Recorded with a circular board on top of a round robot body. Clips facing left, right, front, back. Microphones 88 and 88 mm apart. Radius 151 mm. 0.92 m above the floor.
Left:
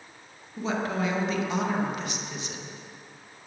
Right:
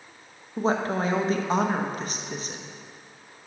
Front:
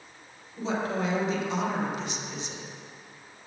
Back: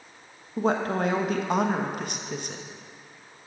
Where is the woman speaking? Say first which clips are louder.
Right 4 dB, back 4 dB; 140° right, 1.2 m.